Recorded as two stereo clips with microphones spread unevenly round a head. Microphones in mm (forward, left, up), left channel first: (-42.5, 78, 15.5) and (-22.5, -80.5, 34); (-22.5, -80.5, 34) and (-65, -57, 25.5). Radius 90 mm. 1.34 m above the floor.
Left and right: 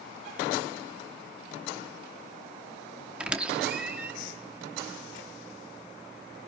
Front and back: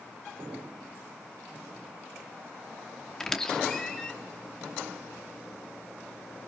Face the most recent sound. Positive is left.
turn(degrees=-30)